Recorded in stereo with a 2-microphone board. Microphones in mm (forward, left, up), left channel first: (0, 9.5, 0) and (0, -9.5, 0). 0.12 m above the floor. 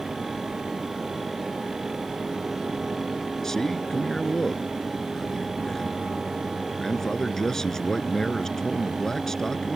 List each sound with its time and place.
3.4 s a man speaking: 30° left (ahead or behind)